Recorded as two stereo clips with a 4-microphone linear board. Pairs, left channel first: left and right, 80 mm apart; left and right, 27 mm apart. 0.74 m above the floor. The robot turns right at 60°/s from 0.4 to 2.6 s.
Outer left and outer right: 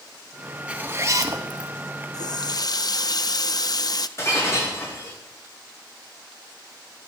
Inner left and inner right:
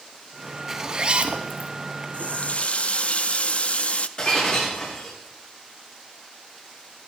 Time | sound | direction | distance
0.7 | a zipper | 165° right | 1.3 m
2.1 | a running tap | 55° left (ahead or behind) | 0.5 m
4.2 | breaking glass | 40° left (ahead or behind) | 8 m